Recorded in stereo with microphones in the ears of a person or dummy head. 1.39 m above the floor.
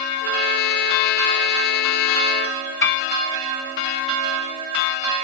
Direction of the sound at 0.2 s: 65° left (ahead or behind).